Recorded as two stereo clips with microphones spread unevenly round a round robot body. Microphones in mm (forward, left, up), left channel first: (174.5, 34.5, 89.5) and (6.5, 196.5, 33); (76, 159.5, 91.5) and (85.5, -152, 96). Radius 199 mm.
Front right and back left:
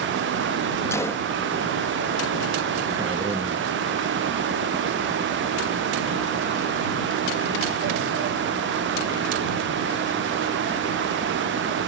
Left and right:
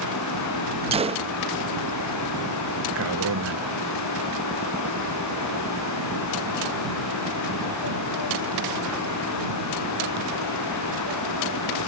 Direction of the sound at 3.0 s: 140° right.